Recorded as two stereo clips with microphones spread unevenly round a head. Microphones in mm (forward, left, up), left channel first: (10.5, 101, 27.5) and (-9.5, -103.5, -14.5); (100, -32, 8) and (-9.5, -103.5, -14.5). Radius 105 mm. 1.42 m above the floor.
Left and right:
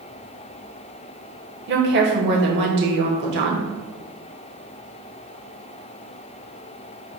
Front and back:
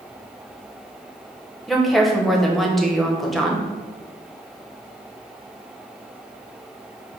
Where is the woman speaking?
55° right, 1.2 m.